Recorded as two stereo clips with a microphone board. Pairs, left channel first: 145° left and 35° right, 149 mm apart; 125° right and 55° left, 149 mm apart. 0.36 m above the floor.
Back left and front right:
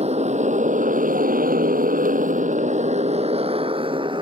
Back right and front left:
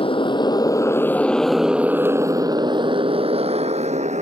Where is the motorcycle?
75° right; by 4.2 s 20° left.